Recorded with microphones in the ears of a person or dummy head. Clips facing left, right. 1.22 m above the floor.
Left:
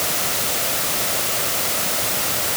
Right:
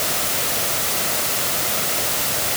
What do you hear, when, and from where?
Only background noise.